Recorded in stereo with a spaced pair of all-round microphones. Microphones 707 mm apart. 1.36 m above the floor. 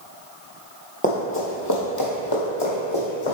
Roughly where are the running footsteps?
Centre.